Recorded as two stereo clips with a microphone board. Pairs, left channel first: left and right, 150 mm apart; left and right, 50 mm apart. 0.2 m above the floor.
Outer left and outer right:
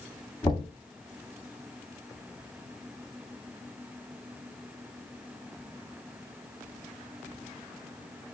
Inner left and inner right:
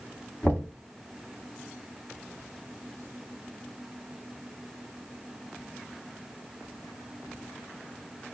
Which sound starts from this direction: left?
Knocking, at 0.4 s.